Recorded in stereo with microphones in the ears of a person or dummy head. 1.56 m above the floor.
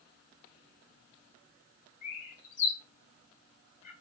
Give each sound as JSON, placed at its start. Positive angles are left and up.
{"t": 2.0, "sound": "a bird", "side_deg": 40, "distance_m": 1.0}